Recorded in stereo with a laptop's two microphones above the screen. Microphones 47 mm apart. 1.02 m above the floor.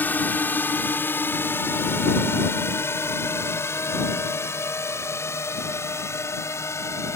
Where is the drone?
40° left (ahead or behind); by 7.2 s 70° left (ahead or behind).